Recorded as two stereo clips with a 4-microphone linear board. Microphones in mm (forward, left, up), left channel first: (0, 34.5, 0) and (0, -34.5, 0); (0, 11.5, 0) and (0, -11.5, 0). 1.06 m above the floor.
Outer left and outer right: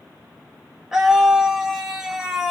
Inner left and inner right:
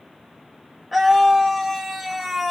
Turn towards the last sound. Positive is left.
turn(degrees=-5)  # may be behind; listen again after turning